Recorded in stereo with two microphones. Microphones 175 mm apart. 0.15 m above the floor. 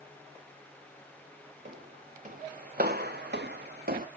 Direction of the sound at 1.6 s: 45° right (ahead or behind).